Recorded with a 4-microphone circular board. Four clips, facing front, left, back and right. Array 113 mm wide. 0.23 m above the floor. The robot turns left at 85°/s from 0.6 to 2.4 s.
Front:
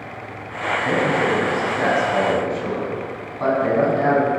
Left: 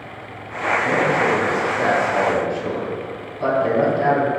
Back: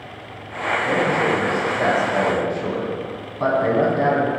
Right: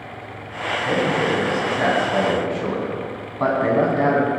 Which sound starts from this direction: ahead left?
A man speaking, at 0.8 s.